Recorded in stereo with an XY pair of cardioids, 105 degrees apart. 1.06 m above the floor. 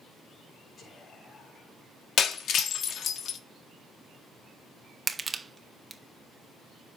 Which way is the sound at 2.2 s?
60° left.